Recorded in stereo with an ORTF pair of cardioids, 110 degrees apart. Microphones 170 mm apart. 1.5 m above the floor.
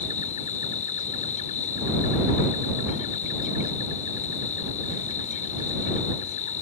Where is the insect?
45° left.